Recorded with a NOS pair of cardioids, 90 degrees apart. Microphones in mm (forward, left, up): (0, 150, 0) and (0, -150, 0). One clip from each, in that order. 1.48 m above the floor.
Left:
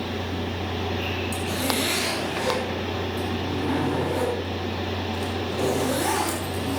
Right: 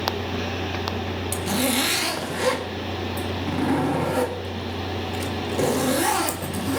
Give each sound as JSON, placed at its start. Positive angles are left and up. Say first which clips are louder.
{"t": 1.3, "sound": "a zipper", "louder": "right 5 dB", "azimuth_deg": -60, "distance_m": 2.5}